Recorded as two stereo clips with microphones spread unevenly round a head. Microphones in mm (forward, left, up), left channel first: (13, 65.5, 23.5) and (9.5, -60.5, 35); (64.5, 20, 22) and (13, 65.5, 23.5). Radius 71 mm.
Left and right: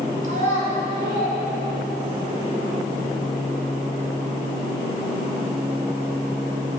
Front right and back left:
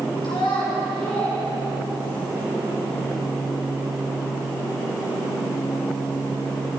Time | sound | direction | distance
0.2 | a child speaking | 60° right | 2.5 m